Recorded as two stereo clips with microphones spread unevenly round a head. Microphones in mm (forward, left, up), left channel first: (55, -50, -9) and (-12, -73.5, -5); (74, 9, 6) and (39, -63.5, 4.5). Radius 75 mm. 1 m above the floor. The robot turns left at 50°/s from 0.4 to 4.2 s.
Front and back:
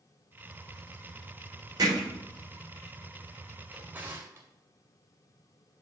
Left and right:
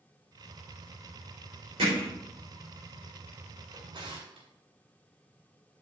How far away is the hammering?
About 3.5 m.